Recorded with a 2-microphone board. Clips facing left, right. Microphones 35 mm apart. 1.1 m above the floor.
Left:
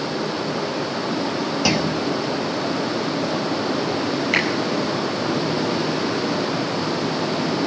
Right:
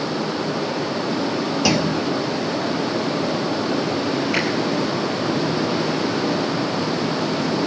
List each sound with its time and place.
1.6 s a clunk: 10° left (ahead or behind), 1.2 m
4.3 s a finger snap: 80° left, 8 m